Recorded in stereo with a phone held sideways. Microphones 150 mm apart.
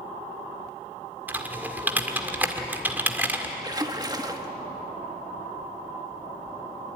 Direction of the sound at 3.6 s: 25° right (ahead or behind).